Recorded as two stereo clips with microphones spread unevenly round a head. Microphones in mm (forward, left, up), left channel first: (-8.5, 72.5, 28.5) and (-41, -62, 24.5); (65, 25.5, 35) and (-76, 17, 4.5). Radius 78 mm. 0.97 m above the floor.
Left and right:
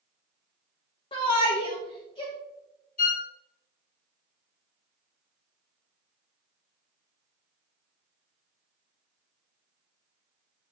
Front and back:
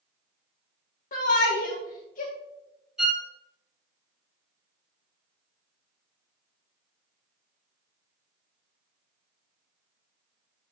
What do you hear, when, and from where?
1.1 s a shout: 25° left, 1.3 m
3.0 s a violin: 100° left, 1.4 m